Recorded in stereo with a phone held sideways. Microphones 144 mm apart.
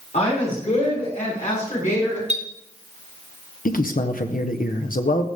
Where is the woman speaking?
50° left (ahead or behind), 6.5 m; by 2.2 s 70° left (ahead or behind), 6.5 m.